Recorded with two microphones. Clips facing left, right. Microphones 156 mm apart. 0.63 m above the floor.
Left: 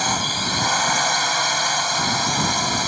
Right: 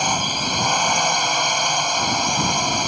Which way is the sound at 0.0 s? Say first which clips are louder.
Right 1 dB; 10° right (ahead or behind).